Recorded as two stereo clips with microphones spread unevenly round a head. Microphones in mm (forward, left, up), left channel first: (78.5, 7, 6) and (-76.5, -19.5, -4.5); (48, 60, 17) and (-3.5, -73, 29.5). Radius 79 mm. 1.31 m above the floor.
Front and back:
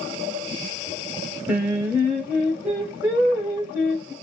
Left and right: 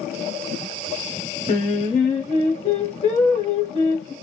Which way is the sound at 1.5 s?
115° left.